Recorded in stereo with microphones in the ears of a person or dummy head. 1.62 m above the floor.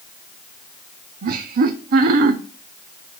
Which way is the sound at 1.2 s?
55° right (ahead or behind).